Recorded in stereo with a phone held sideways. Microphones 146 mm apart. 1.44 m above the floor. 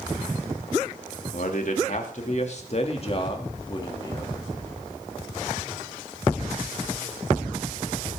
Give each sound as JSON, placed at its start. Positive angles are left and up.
{"t": 1.3, "sound": "a man speaking", "side_deg": 65, "distance_m": 3.0}